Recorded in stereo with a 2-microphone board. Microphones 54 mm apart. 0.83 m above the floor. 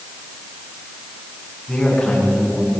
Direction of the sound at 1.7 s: 10° left (ahead or behind).